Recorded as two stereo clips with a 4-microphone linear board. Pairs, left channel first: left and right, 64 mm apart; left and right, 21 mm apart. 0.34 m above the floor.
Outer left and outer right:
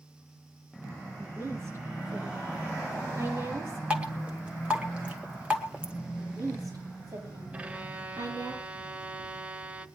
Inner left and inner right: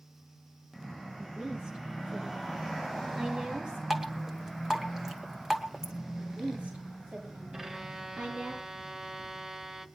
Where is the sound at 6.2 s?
80° right, 9.5 m.